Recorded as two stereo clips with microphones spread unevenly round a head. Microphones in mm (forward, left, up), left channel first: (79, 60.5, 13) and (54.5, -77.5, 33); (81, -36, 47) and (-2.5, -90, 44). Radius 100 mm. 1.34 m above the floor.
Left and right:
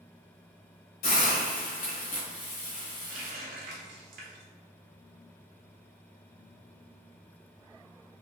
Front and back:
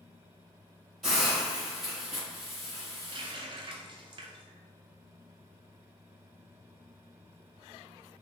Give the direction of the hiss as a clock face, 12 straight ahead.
8 o'clock.